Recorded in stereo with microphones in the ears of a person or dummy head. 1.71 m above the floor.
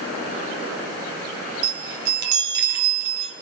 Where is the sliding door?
No sliding door in this recording.